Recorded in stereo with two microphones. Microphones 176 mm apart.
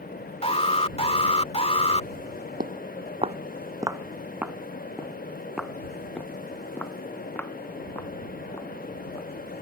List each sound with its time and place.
0.4 s an alarm: 35° left (ahead or behind)
2.6 s footsteps: 60° right (ahead or behind); by 9.3 s 15° left (ahead or behind)